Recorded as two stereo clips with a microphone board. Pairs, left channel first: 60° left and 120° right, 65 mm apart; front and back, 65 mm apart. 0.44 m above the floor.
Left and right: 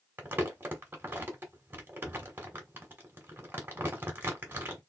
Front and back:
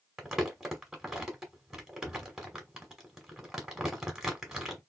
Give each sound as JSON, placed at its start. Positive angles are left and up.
{"t": 0.2, "sound": "crumpling", "azimuth_deg": -100, "distance_m": 1.2}